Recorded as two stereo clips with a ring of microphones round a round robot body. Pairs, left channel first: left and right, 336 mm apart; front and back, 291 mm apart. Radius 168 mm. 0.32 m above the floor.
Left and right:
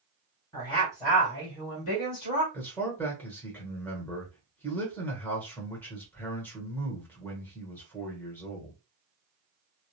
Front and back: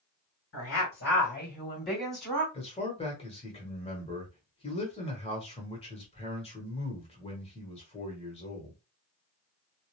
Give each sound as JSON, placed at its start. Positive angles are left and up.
{"t": 0.5, "sound": "a woman speaking", "azimuth_deg": 15, "distance_m": 1.7}
{"t": 2.5, "sound": "a man speaking", "azimuth_deg": 15, "distance_m": 1.0}